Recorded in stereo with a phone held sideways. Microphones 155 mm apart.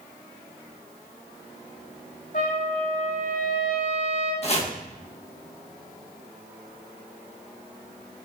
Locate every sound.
2.3 s a trumpet: 60° left (ahead or behind), 1.8 m
4.4 s chopping: 45° left (ahead or behind), 1.0 m